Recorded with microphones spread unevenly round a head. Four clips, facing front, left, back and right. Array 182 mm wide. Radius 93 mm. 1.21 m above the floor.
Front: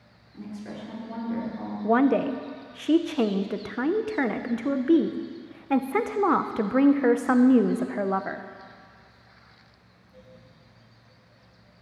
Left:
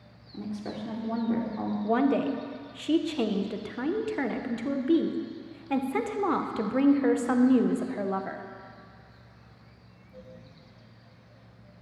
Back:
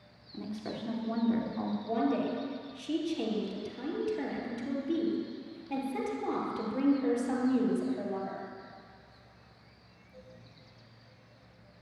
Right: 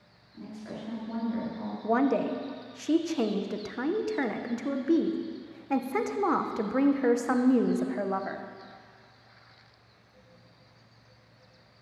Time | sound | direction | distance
0.3 | a woman speaking | 125° left | 2.5 m
1.8 | a woman speaking | 5° right | 0.9 m